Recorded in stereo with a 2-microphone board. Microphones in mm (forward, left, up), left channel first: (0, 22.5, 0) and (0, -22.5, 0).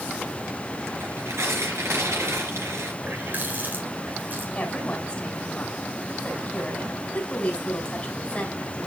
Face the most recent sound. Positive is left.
turn(degrees=30)  # may be behind; listen again after turning